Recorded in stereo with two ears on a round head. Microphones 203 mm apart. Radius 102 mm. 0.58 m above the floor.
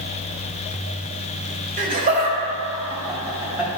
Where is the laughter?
40° right (ahead or behind), 2.5 m; by 3.8 s 5° right (ahead or behind), 3 m.